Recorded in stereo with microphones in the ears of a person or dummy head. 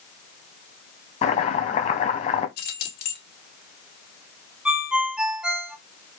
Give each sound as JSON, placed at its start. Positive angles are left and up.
{"t": 1.2, "sound": "chopping", "side_deg": 35, "distance_m": 0.8}
{"t": 2.6, "sound": "keys jangling", "side_deg": 65, "distance_m": 2.0}
{"t": 4.7, "sound": "a ringtone", "side_deg": -5, "distance_m": 0.9}